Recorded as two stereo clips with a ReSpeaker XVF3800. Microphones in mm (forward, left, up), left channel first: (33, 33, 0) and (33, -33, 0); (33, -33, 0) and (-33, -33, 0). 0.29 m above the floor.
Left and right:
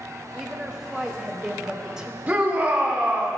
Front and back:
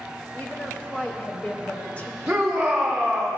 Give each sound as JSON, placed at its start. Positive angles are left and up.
{"t": 0.3, "sound": "a woman speaking", "azimuth_deg": -20, "distance_m": 0.9}
{"t": 2.3, "sound": "a shout", "azimuth_deg": -110, "distance_m": 0.9}